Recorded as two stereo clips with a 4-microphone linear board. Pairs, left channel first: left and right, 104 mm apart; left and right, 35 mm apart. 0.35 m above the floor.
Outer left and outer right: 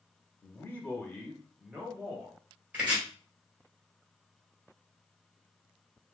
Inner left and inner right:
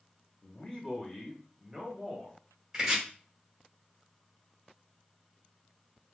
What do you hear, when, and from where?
0.4 s a man speaking: 25° left (ahead or behind), 1.0 m; by 2.4 s 20° right (ahead or behind), 1.3 m
2.7 s chopping: 15° right (ahead or behind), 1.5 m